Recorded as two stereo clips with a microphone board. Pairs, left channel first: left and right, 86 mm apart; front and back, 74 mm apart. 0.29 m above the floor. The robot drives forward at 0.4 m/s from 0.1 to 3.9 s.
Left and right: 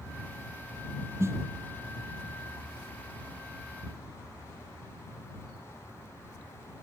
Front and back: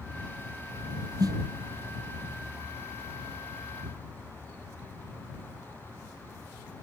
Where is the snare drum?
150° right.